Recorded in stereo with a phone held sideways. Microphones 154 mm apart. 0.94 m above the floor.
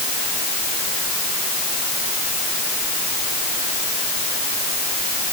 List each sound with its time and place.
Only background noise.